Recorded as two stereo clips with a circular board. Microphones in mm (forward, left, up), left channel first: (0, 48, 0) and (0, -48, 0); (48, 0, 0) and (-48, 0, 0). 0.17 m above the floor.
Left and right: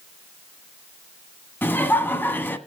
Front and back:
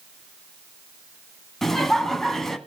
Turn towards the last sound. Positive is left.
turn(degrees=80)